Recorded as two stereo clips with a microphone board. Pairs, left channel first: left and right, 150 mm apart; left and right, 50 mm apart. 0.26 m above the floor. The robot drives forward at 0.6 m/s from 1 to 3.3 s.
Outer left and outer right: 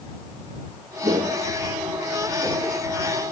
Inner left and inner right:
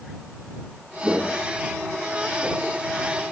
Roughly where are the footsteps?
Right.